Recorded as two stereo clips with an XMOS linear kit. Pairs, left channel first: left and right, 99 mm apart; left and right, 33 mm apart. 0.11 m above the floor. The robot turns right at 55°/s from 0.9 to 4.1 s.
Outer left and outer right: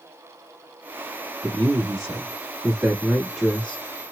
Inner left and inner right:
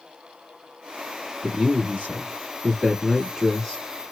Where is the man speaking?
110° right, 1.4 m; by 3.8 s 25° left, 1.4 m.